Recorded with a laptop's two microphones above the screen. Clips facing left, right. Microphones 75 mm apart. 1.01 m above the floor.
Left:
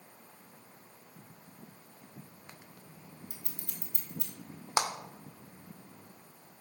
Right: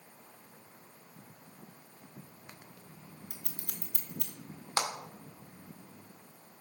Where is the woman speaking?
I don't hear a woman speaking.